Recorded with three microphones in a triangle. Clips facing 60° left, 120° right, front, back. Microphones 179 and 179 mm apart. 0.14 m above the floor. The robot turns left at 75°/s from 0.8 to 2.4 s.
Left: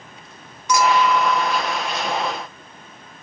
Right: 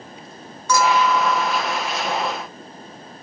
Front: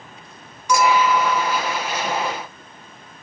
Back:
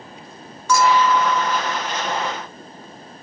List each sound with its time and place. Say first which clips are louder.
0.7 s a clink: left 1 dB, even; 40° left, 0.6 m; by 1.8 s 35° right, 0.6 m